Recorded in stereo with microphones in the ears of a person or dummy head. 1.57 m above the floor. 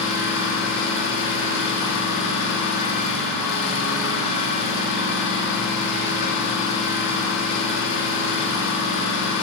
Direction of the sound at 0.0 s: 65° left (ahead or behind).